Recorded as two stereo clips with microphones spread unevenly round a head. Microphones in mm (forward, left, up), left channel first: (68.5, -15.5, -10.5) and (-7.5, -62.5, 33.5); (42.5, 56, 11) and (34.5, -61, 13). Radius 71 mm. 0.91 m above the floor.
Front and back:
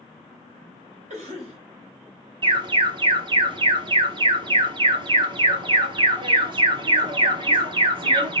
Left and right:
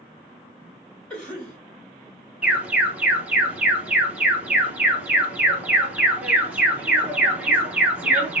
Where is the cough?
170° left, 2.5 m.